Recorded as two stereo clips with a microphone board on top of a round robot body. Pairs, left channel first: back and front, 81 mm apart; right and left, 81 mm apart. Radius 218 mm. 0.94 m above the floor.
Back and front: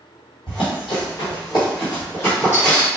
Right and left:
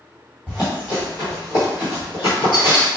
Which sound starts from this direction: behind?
Running footsteps, at 0.5 s.